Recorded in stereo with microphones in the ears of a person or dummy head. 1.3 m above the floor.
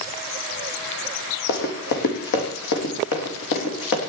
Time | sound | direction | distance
1.5 | running footsteps | 55° left (ahead or behind) | 2.5 m